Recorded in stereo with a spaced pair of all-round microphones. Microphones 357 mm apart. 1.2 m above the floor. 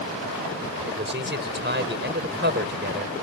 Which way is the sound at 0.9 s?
30° right (ahead or behind).